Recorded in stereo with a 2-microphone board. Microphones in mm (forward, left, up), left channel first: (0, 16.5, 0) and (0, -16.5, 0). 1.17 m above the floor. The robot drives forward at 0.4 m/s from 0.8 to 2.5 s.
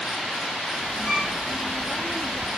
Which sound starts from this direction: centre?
A violin, at 1.1 s.